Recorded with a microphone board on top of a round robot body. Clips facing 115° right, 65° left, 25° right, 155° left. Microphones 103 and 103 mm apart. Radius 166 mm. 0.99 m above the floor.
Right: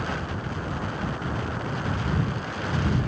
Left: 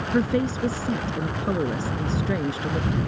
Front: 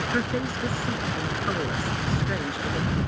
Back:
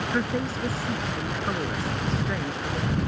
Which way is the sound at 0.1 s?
70° left.